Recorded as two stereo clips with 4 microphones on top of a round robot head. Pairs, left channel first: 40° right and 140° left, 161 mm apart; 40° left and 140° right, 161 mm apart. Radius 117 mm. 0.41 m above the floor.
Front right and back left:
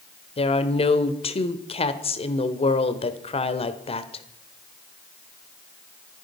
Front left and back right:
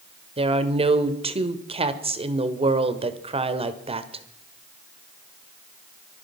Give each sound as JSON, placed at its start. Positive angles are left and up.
{"t": 0.4, "sound": "a woman speaking", "azimuth_deg": -90, "distance_m": 1.5}